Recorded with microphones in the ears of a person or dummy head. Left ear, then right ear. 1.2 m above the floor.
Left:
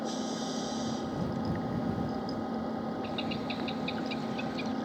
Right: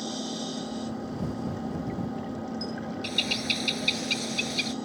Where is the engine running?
25° left (ahead or behind).